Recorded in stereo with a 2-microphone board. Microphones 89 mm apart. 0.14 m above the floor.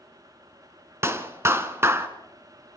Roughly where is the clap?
Right.